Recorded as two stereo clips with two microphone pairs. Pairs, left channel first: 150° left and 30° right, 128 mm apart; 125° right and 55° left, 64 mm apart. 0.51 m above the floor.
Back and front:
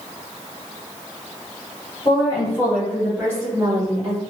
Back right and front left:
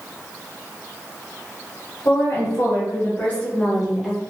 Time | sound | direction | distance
2.0 | a woman speaking | 160° right | 1.4 m